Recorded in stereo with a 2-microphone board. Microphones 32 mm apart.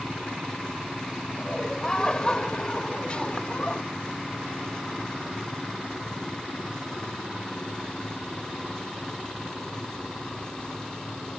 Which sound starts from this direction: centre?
Laughter, at 1.4 s.